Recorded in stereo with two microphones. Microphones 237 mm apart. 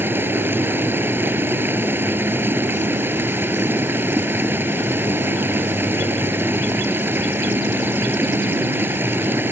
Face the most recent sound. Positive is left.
turn(degrees=-10)  # may be behind; listen again after turning